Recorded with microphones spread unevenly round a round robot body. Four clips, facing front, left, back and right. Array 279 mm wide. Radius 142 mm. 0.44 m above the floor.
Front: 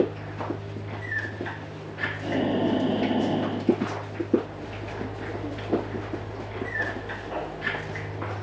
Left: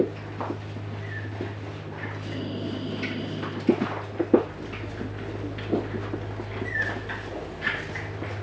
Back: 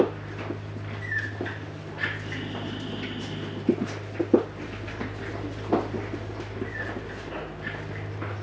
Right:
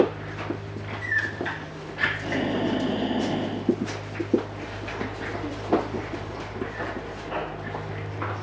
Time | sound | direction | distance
2.2 | breathing | 25° right | ?